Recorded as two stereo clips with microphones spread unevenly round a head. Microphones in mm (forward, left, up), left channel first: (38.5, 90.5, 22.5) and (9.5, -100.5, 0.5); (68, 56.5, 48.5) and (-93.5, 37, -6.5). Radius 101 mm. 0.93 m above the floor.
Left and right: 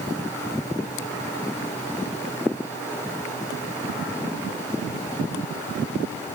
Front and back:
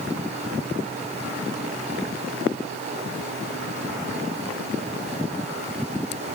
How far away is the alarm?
I don't hear an alarm.